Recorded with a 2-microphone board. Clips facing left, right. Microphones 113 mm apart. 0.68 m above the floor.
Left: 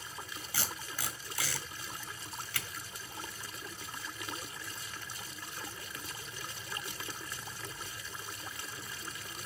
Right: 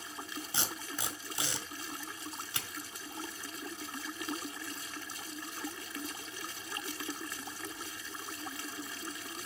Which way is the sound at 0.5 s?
25° right (ahead or behind).